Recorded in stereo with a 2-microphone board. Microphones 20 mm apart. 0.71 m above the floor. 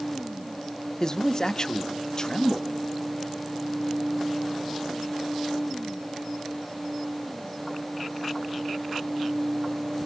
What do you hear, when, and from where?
1.0 s a man speaking: 35° left (ahead or behind), 0.7 m